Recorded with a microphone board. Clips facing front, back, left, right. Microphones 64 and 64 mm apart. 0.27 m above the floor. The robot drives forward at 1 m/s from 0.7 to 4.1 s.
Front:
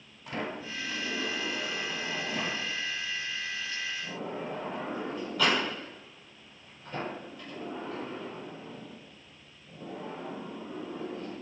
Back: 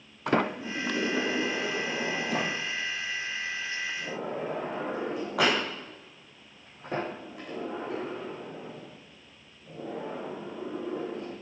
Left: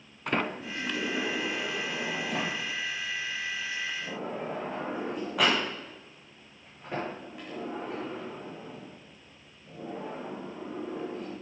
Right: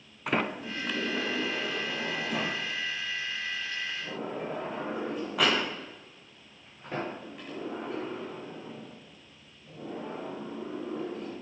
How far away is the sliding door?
About 0.5 m.